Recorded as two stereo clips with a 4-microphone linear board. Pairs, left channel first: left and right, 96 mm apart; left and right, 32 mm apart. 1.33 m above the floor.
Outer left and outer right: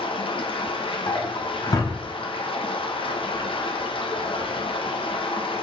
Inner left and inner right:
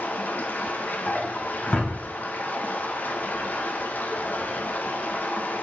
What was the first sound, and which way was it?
Running water, 65° left (ahead or behind).